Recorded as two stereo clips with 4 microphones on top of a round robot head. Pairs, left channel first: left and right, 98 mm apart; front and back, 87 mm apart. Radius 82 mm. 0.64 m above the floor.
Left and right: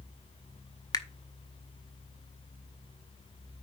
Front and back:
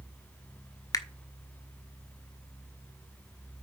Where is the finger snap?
45° left, 1.2 m.